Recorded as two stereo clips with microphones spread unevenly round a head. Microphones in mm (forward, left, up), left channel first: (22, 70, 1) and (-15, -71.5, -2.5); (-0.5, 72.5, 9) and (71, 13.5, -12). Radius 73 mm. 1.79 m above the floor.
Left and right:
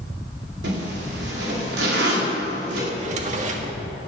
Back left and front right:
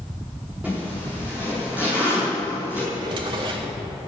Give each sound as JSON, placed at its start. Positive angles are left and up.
{"t": 0.6, "sound": "a zipper", "azimuth_deg": -125, "distance_m": 4.5}
{"t": 2.9, "sound": "a drawer", "azimuth_deg": -85, "distance_m": 1.6}